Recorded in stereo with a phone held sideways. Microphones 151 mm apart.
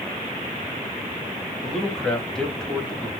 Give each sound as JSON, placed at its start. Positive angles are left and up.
{"t": 1.6, "sound": "a man speaking", "side_deg": 5, "distance_m": 1.0}